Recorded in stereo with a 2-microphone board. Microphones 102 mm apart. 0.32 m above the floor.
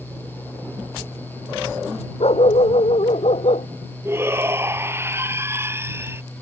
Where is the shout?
25° right (ahead or behind).